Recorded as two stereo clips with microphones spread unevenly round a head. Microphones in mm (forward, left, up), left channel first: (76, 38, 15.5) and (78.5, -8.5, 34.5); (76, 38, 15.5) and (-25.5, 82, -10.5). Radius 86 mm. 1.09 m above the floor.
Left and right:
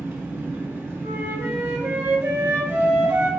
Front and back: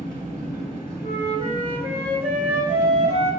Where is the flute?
140° right, 1.3 m.